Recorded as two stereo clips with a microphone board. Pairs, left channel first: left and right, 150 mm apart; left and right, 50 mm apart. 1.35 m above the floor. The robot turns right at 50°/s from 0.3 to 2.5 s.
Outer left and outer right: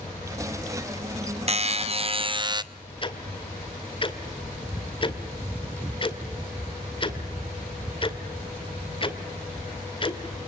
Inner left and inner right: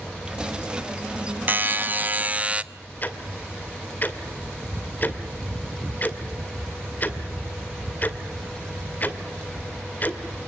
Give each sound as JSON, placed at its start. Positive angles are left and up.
{"t": 1.5, "sound": "a buzzer", "azimuth_deg": -95, "distance_m": 0.8}
{"t": 3.0, "sound": "ticking", "side_deg": 35, "distance_m": 2.0}